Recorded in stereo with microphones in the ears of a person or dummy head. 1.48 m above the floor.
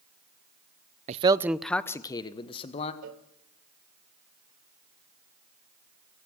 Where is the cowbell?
50° right (ahead or behind), 1.0 m.